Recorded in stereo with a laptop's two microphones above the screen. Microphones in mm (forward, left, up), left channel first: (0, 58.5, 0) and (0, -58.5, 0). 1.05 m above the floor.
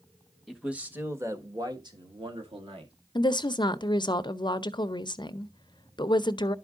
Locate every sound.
0.5 s a man speaking: 5° right (ahead or behind), 1.3 m; by 2.9 s 55° right (ahead or behind), 2 m
3.1 s a woman speaking: 40° left (ahead or behind), 0.6 m